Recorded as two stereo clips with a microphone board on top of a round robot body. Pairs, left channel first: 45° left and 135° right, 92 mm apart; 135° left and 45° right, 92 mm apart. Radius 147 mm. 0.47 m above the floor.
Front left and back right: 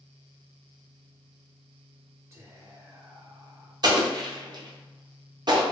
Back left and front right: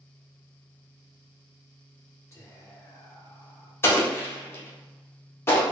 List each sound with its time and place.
2.3 s whispering: 175° left, 0.9 m
3.8 s an explosion: 165° right, 0.8 m